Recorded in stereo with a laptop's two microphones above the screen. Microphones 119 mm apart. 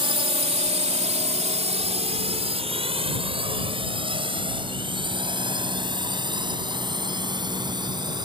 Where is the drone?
50° right (ahead or behind); by 8.2 s 40° right (ahead or behind).